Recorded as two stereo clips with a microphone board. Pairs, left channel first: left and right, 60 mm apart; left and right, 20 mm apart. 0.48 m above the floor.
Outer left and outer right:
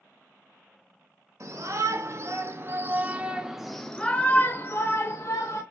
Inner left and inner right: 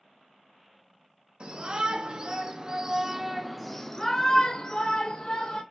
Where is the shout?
65° right (ahead or behind), 1.4 m; by 5.6 s 60° left (ahead or behind), 1.3 m.